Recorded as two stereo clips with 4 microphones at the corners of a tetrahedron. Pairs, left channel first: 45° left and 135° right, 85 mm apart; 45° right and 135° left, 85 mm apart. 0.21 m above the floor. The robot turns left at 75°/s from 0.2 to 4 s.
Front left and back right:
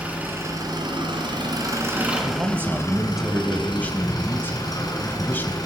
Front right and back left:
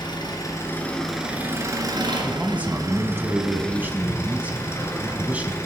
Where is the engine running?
65° right, 2 m; by 5.7 s 10° left, 2 m.